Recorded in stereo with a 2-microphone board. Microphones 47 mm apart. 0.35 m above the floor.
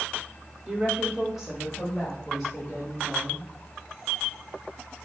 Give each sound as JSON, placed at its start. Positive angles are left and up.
{"t": 0.7, "sound": "a woman speaking", "side_deg": -20, "distance_m": 0.9}